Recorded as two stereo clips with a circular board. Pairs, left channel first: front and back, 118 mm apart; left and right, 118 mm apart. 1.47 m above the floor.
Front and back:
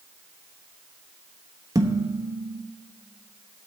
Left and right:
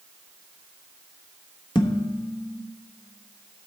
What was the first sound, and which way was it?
Dishes clattering, 130° left.